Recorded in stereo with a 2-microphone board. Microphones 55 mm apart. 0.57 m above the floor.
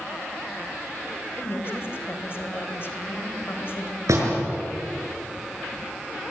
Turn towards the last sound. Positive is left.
turn(degrees=-75)  # may be behind; listen again after turning